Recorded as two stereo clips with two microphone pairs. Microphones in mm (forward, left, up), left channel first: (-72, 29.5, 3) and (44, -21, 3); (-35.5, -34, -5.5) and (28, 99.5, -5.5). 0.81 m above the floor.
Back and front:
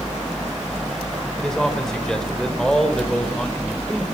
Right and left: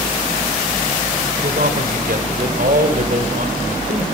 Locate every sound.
1.4 s a man speaking: 70° left, 4 m